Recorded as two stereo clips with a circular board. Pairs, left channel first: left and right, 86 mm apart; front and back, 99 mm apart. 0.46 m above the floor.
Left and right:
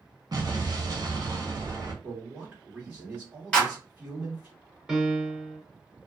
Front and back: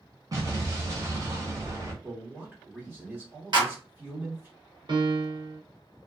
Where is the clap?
165° left, 1.6 m.